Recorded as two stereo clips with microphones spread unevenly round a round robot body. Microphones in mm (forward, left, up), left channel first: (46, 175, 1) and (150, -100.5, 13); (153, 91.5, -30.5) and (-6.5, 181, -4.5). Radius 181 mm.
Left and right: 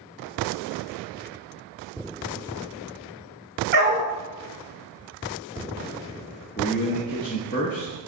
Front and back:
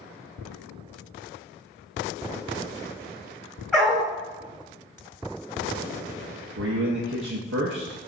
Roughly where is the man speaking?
Behind.